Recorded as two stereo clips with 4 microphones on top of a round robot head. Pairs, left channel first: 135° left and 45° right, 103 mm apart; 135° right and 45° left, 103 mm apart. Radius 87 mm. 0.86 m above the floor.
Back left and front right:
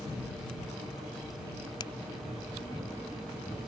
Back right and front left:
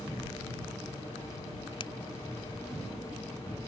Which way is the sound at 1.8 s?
175° right.